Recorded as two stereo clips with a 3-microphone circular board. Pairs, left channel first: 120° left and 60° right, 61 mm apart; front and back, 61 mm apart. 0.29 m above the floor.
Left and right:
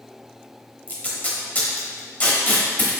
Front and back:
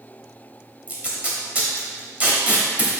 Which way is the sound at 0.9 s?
140° left.